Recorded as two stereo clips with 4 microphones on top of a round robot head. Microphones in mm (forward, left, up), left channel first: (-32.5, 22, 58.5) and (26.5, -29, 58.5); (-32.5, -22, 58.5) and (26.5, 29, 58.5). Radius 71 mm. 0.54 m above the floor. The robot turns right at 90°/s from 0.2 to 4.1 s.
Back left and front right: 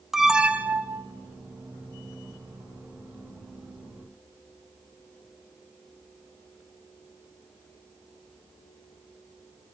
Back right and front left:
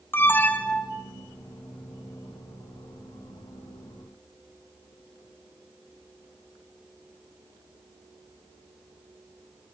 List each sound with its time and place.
0.1 s an alarm: 125° right, 1.2 m; by 1.1 s 45° right, 1.2 m